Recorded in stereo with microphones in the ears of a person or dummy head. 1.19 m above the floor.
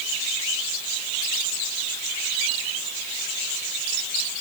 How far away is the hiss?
No hiss in this recording.